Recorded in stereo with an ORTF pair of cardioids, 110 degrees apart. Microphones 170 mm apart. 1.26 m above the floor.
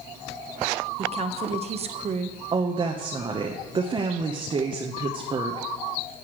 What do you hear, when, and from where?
1.0 s a woman speaking: 40° right, 1.0 m
2.5 s a woman speaking: 30° right, 0.9 m